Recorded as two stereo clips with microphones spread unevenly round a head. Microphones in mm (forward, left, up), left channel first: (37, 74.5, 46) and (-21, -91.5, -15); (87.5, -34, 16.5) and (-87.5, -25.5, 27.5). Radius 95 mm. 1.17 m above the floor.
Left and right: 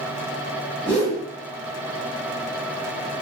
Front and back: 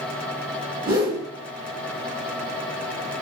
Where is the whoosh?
140° left, 1.2 m.